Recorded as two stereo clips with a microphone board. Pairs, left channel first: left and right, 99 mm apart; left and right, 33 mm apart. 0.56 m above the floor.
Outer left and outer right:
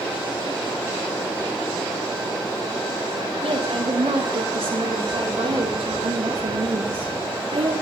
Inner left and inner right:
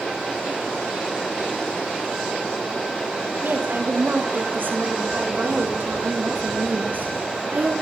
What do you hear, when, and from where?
3.4 s a woman speaking: 75° right (ahead or behind), 6.5 m; by 7.7 s 65° right (ahead or behind), 5 m